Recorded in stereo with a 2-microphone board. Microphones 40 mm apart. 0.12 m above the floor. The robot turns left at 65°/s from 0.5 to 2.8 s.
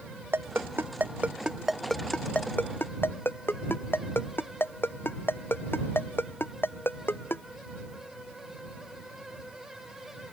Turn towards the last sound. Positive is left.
turn(degrees=65)  # may be behind; listen again after turning